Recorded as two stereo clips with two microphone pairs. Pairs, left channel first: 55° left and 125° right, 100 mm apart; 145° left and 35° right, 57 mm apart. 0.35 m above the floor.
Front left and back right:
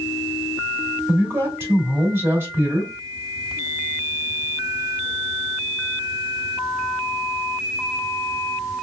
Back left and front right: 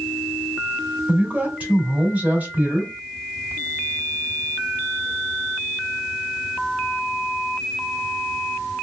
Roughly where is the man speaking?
Right.